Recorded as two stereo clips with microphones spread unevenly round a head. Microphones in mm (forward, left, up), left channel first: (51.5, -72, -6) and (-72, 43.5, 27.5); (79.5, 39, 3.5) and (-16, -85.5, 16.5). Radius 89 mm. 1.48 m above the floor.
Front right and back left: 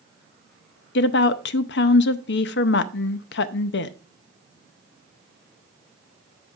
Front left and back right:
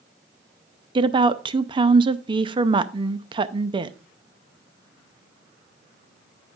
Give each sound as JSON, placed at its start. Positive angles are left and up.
{"t": 0.9, "sound": "a woman speaking", "azimuth_deg": -70, "distance_m": 0.5}